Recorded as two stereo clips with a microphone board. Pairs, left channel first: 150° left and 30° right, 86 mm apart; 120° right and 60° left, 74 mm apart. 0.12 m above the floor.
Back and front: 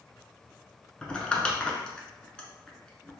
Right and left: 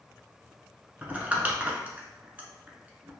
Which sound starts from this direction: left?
Crumpling, at 1.0 s.